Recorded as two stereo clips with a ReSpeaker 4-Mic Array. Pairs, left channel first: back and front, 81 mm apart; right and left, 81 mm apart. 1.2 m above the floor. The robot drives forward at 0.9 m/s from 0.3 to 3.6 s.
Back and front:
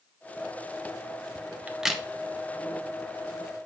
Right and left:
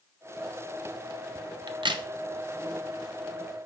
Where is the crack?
70° left, 0.8 m; by 2.0 s 95° left, 0.8 m.